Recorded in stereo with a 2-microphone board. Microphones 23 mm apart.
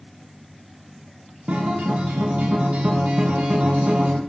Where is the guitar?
75° right (ahead or behind), 0.9 m.